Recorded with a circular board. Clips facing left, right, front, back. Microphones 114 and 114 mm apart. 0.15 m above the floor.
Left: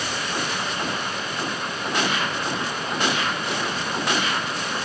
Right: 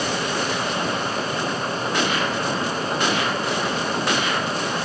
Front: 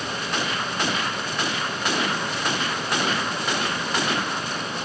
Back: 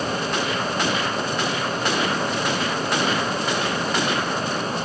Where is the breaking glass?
I don't hear breaking glass.